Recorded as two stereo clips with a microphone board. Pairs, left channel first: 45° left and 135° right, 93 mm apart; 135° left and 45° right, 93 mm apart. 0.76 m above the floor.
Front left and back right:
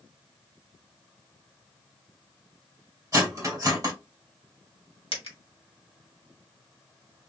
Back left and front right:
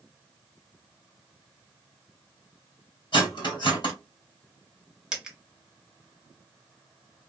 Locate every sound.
3.1 s cutlery clinking: 170° left, 1.5 m
5.1 s a dropped coin: 40° left, 1.0 m